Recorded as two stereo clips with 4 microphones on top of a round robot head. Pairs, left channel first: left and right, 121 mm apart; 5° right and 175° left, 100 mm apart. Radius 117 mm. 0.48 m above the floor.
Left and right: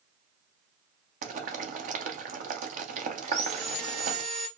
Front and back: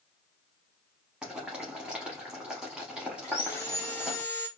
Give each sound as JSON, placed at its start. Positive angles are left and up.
{"t": 1.2, "sound": "boiling", "azimuth_deg": -100, "distance_m": 0.7}
{"t": 3.2, "sound": "sawing", "azimuth_deg": -70, "distance_m": 1.6}